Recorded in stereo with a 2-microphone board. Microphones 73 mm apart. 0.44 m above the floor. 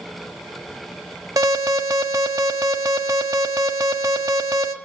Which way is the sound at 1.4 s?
60° right (ahead or behind).